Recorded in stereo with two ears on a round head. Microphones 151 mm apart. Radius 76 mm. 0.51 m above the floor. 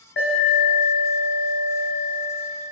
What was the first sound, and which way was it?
An alarm, 75° left (ahead or behind).